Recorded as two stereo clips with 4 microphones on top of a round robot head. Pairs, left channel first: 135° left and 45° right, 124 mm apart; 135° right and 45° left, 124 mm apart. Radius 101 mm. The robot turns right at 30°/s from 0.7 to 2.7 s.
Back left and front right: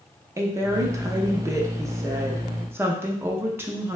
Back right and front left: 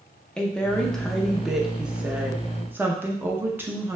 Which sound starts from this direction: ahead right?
A woman speaking, at 0.4 s.